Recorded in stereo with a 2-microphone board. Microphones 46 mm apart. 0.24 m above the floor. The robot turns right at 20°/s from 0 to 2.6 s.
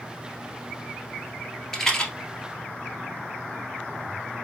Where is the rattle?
10° left (ahead or behind), 1.2 m; by 2.1 s 15° left (ahead or behind), 1.2 m.